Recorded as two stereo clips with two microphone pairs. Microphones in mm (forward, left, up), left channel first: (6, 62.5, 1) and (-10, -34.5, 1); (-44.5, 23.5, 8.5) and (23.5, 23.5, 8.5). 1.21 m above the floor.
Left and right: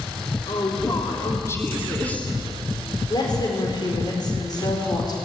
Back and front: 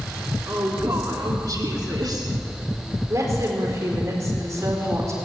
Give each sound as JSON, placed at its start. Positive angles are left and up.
{"t": 0.5, "sound": "a woman speaking", "azimuth_deg": 45, "distance_m": 3.0}
{"t": 3.1, "sound": "a woman speaking", "azimuth_deg": 40, "distance_m": 4.0}